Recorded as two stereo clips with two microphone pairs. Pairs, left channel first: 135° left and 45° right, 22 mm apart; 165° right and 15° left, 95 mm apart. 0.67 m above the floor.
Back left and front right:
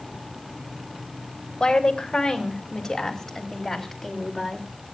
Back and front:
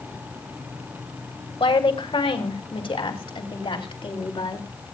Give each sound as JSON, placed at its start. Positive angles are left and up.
{"t": 1.6, "sound": "a woman speaking", "azimuth_deg": -175, "distance_m": 2.0}